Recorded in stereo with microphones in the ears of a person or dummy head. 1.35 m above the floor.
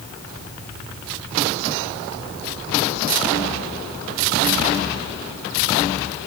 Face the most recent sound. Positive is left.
No sound to turn to.